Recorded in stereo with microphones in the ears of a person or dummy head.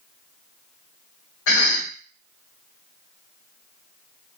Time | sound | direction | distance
1.5 | a cough | 70° left (ahead or behind) | 1.4 m